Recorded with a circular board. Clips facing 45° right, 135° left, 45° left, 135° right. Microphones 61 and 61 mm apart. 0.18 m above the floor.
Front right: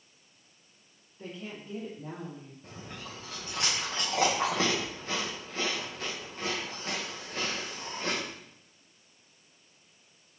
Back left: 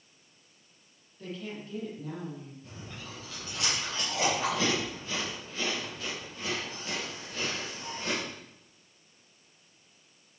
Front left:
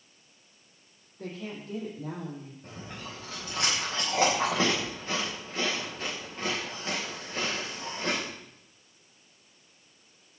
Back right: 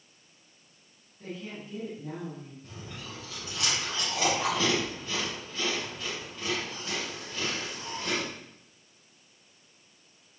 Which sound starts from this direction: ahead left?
A woman speaking, at 1.2 s.